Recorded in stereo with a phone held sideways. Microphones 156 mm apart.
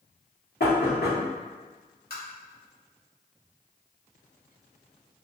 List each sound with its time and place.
0.6 s knocking: 75° left (ahead or behind), 1.0 m
2.1 s tapping: 70° left (ahead or behind), 1.0 m